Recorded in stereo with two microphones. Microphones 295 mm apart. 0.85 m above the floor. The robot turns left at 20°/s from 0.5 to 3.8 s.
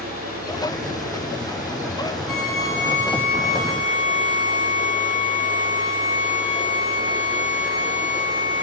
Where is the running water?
145° right, 4 m; by 8.6 s 145° left, 4 m.